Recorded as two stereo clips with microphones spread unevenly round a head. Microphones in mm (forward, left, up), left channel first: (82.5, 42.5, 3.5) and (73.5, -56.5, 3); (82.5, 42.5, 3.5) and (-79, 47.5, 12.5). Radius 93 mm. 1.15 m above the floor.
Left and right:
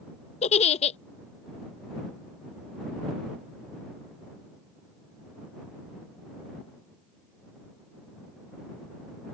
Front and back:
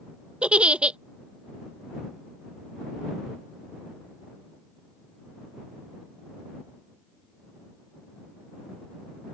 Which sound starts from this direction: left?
A giggle, at 0.4 s.